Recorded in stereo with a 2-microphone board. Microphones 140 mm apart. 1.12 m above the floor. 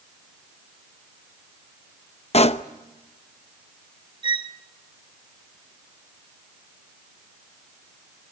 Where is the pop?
50° left (ahead or behind), 0.7 m.